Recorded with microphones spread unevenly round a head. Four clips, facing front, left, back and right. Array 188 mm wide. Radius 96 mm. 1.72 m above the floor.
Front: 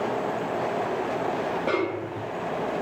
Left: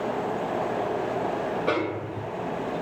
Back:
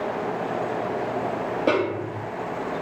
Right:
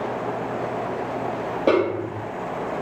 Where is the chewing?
No chewing in this recording.